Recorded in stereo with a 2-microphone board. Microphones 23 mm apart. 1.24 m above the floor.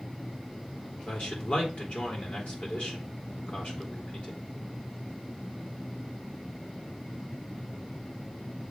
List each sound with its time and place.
1.1 s a man speaking: 65° left (ahead or behind), 3.5 m